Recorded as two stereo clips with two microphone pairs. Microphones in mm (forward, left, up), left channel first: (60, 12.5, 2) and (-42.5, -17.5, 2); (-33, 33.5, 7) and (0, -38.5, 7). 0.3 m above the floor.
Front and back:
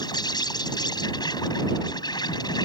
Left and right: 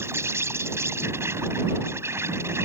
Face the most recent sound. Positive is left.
turn(degrees=-20)